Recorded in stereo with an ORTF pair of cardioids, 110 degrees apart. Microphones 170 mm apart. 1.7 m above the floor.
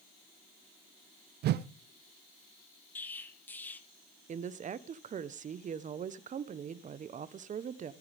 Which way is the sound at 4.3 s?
45° right.